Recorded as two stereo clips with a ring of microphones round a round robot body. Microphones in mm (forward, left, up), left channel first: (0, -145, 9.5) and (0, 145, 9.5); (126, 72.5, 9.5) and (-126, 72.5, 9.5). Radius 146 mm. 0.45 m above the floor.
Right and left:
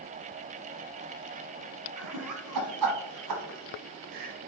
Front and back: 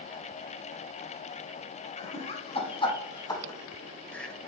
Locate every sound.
2.0 s laughter: 65° left, 4 m; by 4.3 s 85° left, 2.5 m